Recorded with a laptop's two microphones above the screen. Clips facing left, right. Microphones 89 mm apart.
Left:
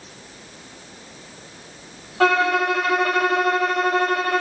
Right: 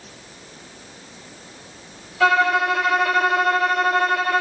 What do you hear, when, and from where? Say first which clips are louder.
2.2 s a violin: right 1 dB; 50° left (ahead or behind), 2.5 m